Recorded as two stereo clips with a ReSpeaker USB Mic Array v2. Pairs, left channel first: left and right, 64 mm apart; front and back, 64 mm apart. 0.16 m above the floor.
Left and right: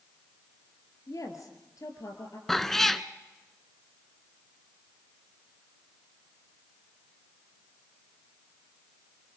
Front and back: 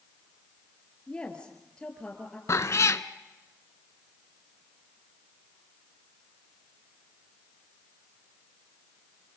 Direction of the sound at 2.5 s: 10° left.